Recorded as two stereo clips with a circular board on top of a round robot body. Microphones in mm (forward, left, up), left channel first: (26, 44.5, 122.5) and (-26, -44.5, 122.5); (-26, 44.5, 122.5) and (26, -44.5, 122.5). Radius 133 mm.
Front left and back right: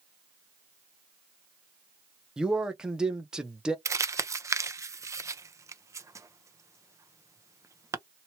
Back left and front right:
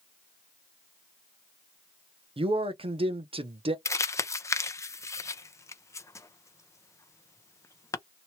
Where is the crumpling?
Straight behind, 0.7 m.